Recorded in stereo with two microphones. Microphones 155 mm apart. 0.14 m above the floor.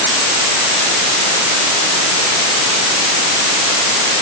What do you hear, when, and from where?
Only background noise.